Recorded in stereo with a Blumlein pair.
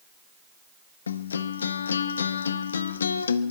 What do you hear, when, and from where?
1.1 s a guitar: 70° left, 0.6 m